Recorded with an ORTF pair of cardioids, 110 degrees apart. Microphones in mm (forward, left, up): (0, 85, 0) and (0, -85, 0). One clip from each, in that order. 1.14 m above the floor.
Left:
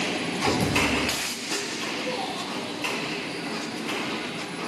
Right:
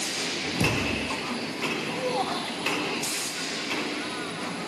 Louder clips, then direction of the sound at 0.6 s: Left 3 dB; 35° right.